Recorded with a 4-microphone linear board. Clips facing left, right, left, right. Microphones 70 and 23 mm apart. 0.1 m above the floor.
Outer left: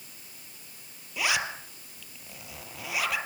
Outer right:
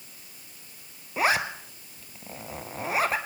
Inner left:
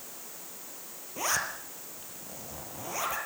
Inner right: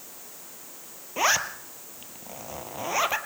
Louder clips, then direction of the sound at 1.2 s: Outer right 5 dB, inner right 7 dB; 35° right (ahead or behind).